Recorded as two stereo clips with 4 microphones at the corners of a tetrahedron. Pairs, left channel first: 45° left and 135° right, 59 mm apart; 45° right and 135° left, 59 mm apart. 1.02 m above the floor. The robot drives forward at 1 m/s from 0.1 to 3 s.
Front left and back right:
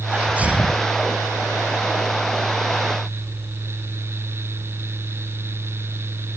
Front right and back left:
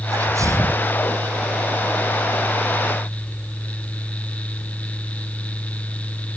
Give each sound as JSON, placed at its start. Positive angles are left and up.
{"t": 0.1, "sound": "a sneeze", "azimuth_deg": 160}